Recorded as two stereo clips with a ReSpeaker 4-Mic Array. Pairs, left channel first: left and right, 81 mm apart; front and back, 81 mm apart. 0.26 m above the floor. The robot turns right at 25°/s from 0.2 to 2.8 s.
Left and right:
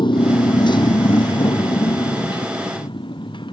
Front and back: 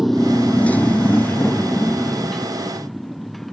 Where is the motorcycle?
95° left; by 3.5 s 90° left.